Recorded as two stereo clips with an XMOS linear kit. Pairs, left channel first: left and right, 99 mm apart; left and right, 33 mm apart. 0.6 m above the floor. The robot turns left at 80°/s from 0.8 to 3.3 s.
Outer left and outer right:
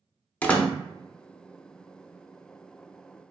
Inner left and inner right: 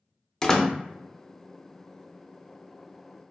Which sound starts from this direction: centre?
A door slam, at 0.4 s.